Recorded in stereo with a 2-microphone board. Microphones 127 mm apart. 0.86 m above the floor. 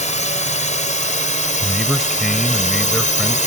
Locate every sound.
0.0 s a drone: 70° left (ahead or behind); by 3.5 s 75° left (ahead or behind)
1.6 s a man speaking: centre (ahead or behind)